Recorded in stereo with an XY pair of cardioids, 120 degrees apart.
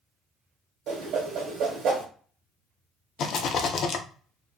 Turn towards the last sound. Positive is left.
turn(degrees=55)